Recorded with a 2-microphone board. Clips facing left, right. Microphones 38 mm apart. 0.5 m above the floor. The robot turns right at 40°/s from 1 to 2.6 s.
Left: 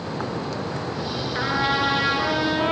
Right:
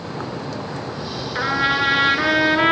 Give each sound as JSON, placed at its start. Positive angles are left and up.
{"t": 1.4, "sound": "a trumpet", "azimuth_deg": -165, "distance_m": 4.0}